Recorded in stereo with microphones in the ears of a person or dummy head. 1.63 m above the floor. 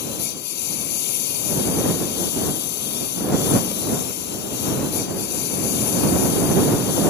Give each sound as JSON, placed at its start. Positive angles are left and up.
{"t": 0.0, "sound": "a lawn mower", "side_deg": 60}